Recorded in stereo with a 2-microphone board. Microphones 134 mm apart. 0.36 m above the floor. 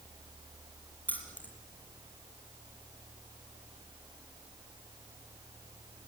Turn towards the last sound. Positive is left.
turn(degrees=15)  # may be behind; listen again after turning